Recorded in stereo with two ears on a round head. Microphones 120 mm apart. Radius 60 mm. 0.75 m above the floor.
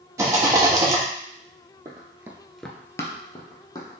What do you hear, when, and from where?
0.2 s a rattle: 20° right (ahead or behind), 1.2 m
1.9 s running footsteps: 25° right (ahead or behind), 1.2 m; by 3.9 s 30° left (ahead or behind), 2 m